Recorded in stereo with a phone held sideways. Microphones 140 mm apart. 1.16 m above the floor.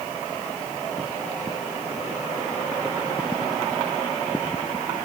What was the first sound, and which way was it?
Only background noise.